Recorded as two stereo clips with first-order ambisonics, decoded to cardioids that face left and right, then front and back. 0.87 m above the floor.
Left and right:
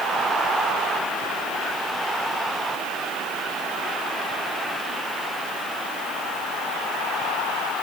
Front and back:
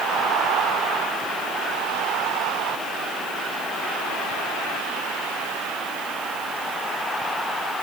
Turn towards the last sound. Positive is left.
No sound to turn to.